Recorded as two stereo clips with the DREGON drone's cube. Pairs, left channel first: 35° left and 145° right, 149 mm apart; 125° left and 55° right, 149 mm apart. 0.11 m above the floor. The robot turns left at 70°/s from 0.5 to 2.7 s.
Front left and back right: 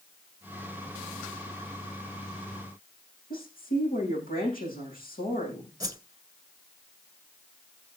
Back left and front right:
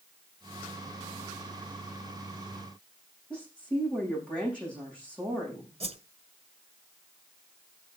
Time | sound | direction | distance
3.3 | a woman speaking | 40° left | 8 m
5.8 | a whoosh | 85° right | 0.7 m